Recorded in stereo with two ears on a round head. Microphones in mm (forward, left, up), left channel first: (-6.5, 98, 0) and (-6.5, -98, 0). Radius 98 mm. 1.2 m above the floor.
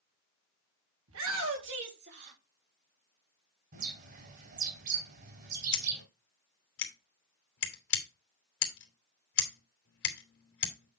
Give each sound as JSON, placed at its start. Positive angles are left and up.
{"t": 1.1, "sound": "a shout", "side_deg": -70, "distance_m": 3.0}
{"t": 3.7, "sound": "a bird", "side_deg": -45, "distance_m": 3.5}
{"t": 5.7, "sound": "scissors", "side_deg": 60, "distance_m": 3.0}